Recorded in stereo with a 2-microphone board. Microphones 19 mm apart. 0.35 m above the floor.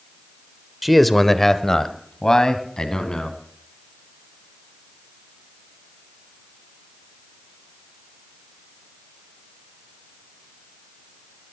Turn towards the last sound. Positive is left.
turn(degrees=40)  # may be behind; listen again after turning